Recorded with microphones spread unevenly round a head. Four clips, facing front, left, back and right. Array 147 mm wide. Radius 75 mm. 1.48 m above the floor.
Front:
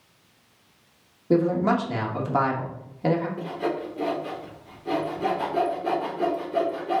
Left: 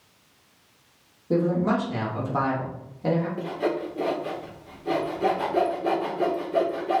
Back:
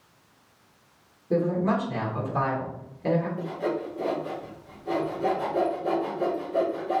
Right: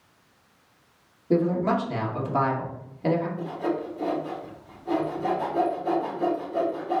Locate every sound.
1.3 s a man speaking: 5° right, 2.5 m
3.4 s sawing: 55° left, 3 m